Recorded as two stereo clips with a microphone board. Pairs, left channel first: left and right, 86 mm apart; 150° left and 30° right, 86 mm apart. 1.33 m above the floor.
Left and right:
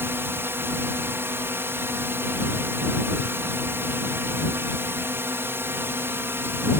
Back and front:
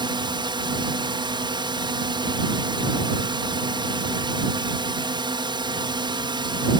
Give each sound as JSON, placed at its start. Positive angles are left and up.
{"t": 0.0, "sound": "a drone", "azimuth_deg": -30}